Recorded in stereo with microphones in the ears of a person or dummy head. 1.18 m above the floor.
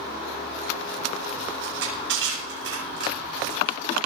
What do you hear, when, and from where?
1.6 s crushing: 75° right (ahead or behind), 9 m